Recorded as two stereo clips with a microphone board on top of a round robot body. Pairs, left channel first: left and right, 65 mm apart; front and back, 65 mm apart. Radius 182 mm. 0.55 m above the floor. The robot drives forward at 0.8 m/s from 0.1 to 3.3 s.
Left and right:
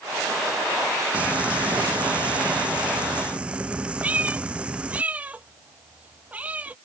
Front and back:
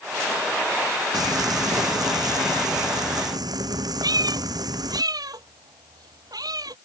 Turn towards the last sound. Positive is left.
turn(degrees=-160)